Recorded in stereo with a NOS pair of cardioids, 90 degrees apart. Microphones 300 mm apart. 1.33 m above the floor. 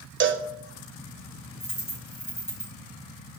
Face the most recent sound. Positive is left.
turn(degrees=10)